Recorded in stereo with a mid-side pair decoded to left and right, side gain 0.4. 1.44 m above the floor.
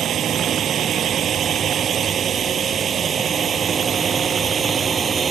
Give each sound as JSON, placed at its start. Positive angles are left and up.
{"t": 0.0, "sound": "a drone", "azimuth_deg": -65}